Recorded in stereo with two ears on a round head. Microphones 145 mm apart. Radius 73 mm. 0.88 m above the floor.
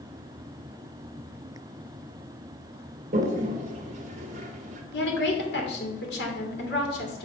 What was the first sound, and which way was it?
A toilet flushing, 45° right (ahead or behind).